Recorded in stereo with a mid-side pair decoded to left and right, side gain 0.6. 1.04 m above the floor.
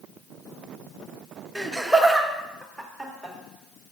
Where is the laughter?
5° right, 0.8 m.